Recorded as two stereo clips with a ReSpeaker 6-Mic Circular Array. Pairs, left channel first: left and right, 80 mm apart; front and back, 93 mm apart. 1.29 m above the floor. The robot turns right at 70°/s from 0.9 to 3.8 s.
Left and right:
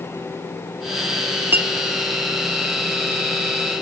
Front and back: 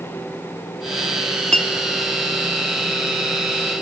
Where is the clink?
75° right, 0.6 m; by 1.7 s 60° right, 0.6 m.